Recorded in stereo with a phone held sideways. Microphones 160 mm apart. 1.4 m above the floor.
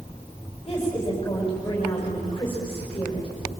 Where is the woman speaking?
35° left (ahead or behind), 5.5 m.